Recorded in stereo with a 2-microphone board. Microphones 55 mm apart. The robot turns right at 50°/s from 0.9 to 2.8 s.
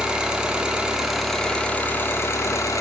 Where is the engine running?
15° right, 2.0 m; by 2.8 s 80° left, 2.0 m.